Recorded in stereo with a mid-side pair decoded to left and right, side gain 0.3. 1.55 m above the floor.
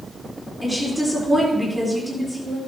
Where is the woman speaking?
Straight ahead, 4 m.